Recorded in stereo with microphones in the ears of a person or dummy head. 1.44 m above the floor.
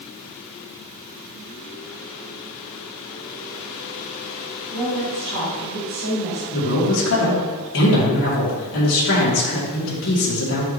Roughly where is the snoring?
I don't hear snoring.